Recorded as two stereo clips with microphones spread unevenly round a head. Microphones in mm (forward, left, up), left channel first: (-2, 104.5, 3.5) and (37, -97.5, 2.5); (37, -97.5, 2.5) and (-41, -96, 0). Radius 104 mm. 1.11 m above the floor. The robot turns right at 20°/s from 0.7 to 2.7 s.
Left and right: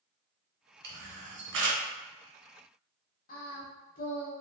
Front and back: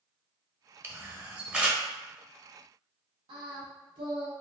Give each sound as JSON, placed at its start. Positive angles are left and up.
{"t": 0.8, "sound": "a camera shutter", "azimuth_deg": -120, "distance_m": 0.9}
{"t": 3.3, "sound": "singing", "azimuth_deg": 155, "distance_m": 0.8}